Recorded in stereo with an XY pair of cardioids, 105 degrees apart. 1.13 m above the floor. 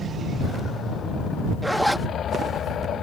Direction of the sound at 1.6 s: 10° right.